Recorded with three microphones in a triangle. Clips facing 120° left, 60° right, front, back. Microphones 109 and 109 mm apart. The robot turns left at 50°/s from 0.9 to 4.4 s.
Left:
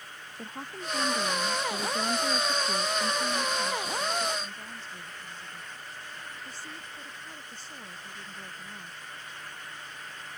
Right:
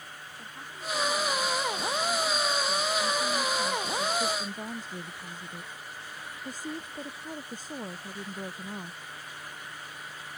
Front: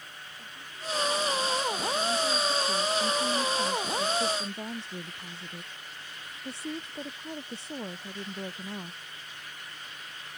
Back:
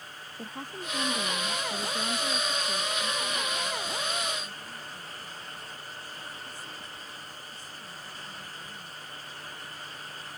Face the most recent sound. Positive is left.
turn(degrees=-15)